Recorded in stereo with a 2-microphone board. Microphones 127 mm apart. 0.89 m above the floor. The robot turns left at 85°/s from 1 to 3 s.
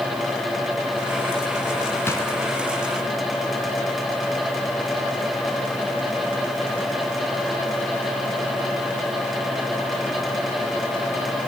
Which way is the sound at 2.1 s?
15° left (ahead or behind).